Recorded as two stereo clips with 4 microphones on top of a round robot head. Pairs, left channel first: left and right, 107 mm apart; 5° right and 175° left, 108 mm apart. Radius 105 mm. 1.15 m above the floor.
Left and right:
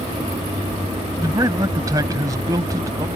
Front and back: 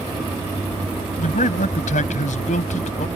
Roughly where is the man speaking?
Ahead right.